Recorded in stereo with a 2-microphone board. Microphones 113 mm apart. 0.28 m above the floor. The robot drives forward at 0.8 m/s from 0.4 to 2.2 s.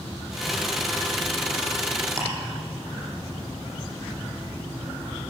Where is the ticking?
20° right (ahead or behind), 5.5 m.